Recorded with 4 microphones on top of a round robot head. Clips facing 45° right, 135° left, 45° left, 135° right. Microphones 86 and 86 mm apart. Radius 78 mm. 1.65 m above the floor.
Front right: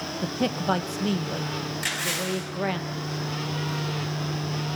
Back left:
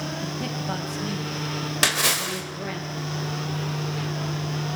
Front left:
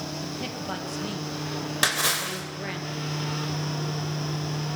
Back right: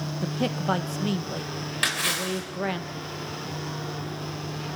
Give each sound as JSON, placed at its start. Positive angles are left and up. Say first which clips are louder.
{"t": 0.2, "sound": "a man speaking", "louder": "front right 4 dB, back right 6 dB", "azimuth_deg": -85, "distance_m": 1.3}
{"t": 1.8, "sound": "a splash", "louder": "back left 7 dB, even", "azimuth_deg": 115, "distance_m": 4.0}